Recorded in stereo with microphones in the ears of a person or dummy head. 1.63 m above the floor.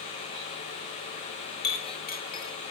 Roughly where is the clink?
Left.